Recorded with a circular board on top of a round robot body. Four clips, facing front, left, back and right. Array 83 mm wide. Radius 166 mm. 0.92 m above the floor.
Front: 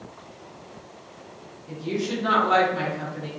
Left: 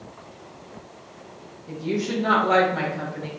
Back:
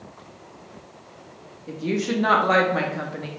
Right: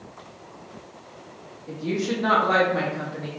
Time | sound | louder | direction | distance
1.7 | a woman speaking | even, back 3 dB | 165° right | 1.7 m